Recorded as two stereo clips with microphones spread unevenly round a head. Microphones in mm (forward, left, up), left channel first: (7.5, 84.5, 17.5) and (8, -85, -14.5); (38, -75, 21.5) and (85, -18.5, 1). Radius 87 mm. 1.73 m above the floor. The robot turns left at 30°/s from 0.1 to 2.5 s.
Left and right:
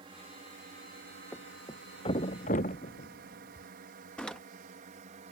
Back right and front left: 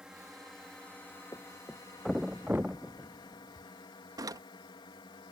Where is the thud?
170° left; by 3.7 s 135° left.